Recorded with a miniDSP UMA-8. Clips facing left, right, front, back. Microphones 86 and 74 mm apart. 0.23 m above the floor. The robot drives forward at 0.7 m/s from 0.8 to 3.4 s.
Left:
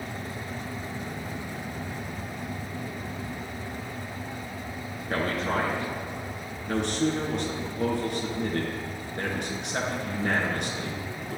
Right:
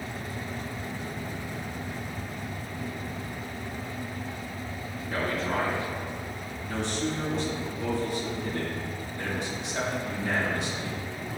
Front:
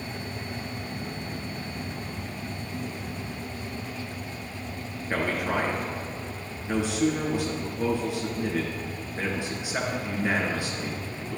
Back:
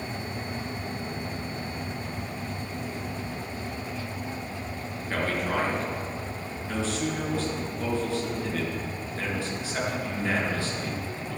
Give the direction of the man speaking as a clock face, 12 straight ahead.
10 o'clock.